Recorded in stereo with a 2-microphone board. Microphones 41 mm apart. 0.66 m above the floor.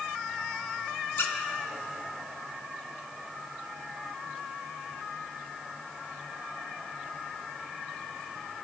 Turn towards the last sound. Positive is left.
turn(degrees=70)  # may be behind; listen again after turning